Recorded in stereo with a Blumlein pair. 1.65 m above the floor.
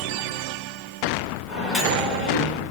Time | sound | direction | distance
1.5 | a microwave | 20° left | 1.4 m